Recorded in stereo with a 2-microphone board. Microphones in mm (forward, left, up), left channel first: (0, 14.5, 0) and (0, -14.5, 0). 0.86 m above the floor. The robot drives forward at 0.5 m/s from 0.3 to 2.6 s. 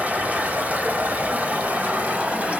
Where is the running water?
65° right (ahead or behind), 1.2 m; by 2.6 s 50° right (ahead or behind), 1.5 m.